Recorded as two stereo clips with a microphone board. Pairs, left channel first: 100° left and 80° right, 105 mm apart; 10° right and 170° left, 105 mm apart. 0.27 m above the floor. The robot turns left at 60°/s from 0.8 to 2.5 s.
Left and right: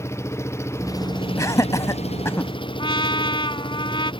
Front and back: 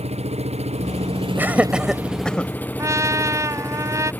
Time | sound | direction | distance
0.0 | an engine running | 165° left | ?
1.4 | laughter | 120° left | ?
2.8 | a trumpet | 115° left | ?